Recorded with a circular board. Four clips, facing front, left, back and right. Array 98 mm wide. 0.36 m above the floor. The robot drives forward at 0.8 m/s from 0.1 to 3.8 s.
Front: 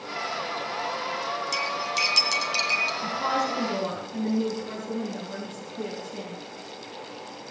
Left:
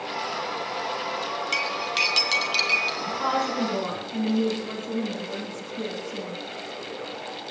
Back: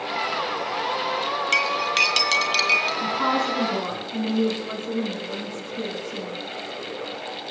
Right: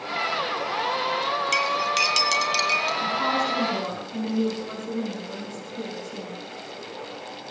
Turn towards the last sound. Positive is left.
turn(degrees=-170)